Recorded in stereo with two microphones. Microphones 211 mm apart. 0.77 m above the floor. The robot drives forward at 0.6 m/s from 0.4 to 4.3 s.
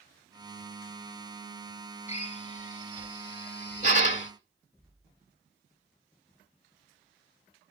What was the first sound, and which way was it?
A drill, 30° left (ahead or behind).